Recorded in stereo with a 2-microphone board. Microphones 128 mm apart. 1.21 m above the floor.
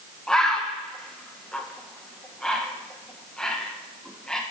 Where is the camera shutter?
I don't hear a camera shutter.